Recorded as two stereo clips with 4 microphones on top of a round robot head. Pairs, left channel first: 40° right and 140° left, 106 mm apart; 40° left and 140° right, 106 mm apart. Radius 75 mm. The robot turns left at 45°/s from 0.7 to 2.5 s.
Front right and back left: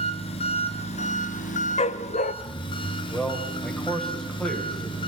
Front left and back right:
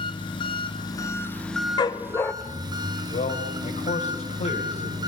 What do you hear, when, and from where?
0.0 s an engine running: 5° right, 2 m; by 5.1 s 85° right, 2 m
1.8 s a dog barking: 10° right, 0.8 m; by 2.3 s 35° right, 0.8 m
3.1 s a man speaking: 45° left, 3 m